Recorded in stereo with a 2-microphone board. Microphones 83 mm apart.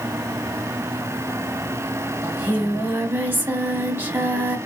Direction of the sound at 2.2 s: 25° right (ahead or behind).